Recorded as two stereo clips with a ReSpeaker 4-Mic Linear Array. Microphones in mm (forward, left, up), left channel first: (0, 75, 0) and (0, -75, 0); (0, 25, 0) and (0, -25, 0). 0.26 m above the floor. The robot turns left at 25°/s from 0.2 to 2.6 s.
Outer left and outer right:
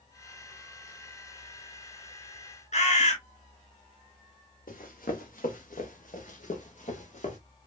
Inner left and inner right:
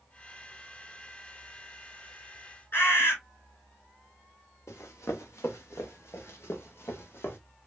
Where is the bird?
55° left (ahead or behind), 3 m.